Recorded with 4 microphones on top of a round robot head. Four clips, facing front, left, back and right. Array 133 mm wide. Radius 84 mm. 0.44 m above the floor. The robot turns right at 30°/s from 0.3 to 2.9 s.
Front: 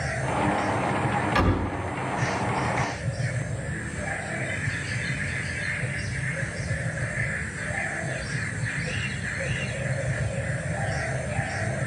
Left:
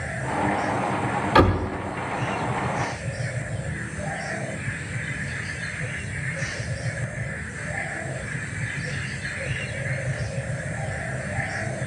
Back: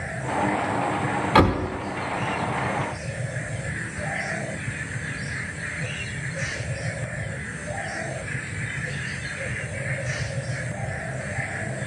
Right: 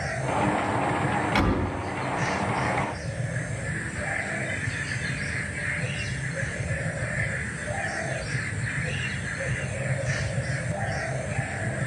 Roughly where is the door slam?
Behind left.